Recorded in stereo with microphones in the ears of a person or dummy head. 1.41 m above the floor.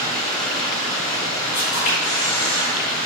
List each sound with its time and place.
0.0 s running water: 25° left (ahead or behind), 1.5 m
1.5 s a camera shutter: 45° left (ahead or behind), 1.7 m